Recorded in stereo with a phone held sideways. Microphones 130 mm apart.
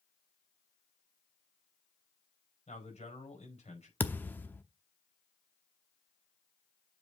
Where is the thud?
15° left (ahead or behind), 0.8 m.